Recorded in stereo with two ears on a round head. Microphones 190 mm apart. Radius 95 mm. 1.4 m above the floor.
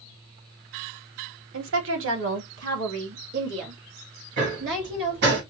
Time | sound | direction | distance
1.5 | a woman speaking | 65° right (ahead or behind) | 1.3 m
4.4 | hammering | 55° right (ahead or behind) | 2.5 m